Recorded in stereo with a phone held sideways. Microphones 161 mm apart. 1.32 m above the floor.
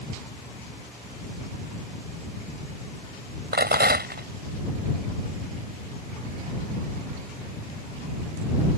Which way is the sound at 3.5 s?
90° right.